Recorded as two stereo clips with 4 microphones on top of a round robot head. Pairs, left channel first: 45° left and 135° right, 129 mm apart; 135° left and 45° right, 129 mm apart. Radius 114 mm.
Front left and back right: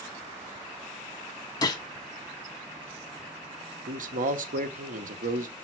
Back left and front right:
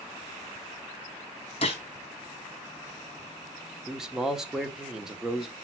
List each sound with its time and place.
1.6 s a gunshot: 100° left, 1.0 m
3.9 s a man speaking: 130° right, 1.1 m